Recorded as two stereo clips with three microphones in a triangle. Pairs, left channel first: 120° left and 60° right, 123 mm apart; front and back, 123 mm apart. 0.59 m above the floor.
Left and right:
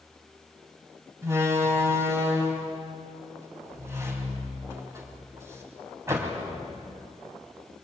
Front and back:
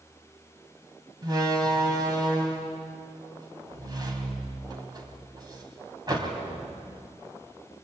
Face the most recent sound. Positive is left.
turn(degrees=-125)